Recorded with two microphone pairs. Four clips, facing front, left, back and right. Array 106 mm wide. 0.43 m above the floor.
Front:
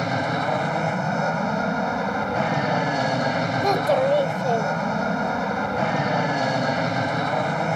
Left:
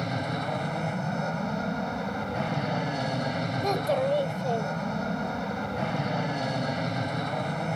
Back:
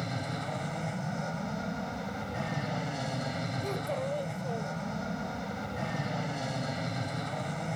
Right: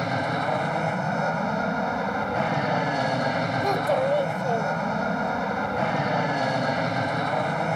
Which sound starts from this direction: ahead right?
An aircraft, at 0.0 s.